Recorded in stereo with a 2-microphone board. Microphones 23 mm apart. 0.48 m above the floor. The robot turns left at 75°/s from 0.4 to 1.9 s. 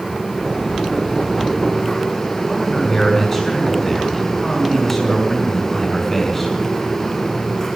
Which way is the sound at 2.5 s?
10° left (ahead or behind).